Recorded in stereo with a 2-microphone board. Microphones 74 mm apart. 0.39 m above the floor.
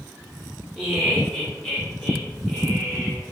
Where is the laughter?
Centre (ahead or behind), 1.0 m; by 3.2 s 20° left (ahead or behind), 1.9 m.